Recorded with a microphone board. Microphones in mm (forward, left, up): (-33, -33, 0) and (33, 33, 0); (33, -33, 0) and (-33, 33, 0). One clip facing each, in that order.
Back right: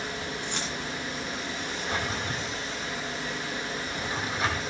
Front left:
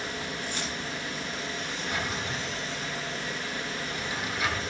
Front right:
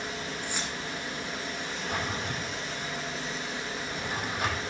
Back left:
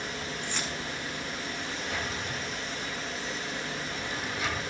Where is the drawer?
80° right, 4.5 m.